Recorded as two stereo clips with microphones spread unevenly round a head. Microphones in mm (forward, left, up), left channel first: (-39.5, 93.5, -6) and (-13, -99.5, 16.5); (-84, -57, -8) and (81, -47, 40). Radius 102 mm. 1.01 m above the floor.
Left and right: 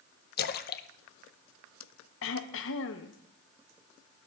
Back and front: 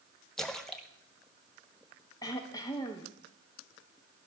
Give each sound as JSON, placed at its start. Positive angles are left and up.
{"t": 0.4, "sound": "a splash", "azimuth_deg": 110, "distance_m": 0.6}
{"t": 2.2, "sound": "throat clearing", "azimuth_deg": 115, "distance_m": 0.9}